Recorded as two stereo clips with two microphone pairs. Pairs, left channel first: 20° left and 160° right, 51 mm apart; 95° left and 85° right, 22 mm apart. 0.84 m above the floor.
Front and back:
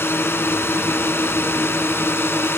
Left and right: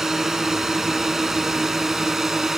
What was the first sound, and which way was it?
A drone, 15° right.